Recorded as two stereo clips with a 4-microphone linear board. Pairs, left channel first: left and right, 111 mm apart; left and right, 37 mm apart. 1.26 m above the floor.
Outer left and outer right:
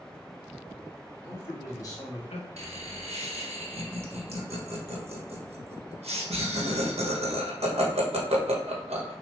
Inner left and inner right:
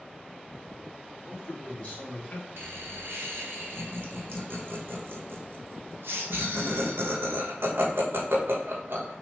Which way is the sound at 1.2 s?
20° left (ahead or behind).